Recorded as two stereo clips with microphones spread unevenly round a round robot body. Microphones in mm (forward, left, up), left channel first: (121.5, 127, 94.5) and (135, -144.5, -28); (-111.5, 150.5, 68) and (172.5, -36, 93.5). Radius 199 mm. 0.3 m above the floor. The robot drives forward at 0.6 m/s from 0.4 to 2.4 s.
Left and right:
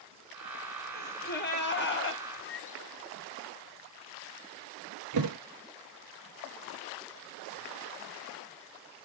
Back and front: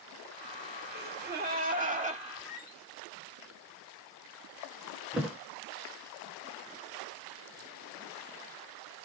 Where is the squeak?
55° left, 2 m.